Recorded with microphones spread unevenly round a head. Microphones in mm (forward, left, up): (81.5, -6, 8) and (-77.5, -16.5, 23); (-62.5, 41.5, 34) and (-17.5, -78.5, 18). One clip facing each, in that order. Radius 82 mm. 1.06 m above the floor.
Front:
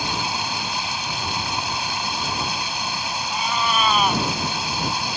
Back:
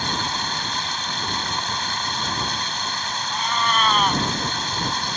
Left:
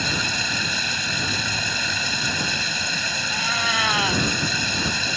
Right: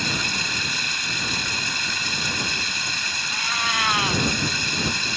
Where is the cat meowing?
90° left.